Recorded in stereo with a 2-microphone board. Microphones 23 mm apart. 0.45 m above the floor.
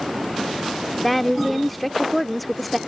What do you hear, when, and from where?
1.0 s a woman speaking: 5° left (ahead or behind)